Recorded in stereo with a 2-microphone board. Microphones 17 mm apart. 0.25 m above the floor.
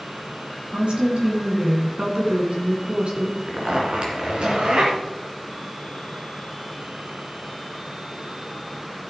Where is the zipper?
70° right (ahead or behind), 3 m.